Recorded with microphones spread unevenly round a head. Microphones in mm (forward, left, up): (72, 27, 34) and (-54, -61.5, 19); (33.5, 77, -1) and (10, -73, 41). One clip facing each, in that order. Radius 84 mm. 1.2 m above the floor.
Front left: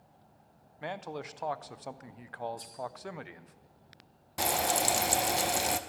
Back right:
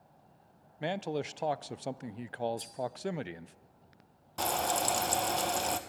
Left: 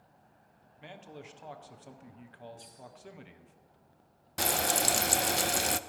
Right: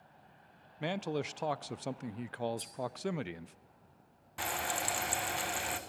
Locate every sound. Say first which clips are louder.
0.8 s a man speaking: back right 5 dB, right 12 dB; 95° right, 0.5 m
2.6 s cutlery clinking: back right 2 dB, right 5 dB; 80° right, 3 m
4.4 s frying: front left 1 dB, left 6 dB; 120° left, 0.7 m